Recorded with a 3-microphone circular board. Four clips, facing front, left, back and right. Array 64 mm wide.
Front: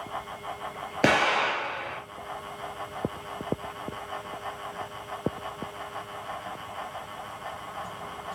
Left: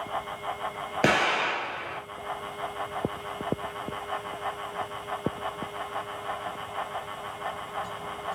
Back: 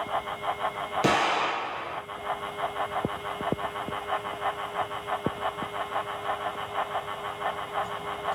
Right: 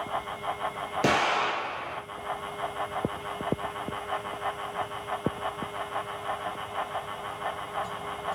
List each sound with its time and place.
1.0 s an explosion: 35° left, 3 m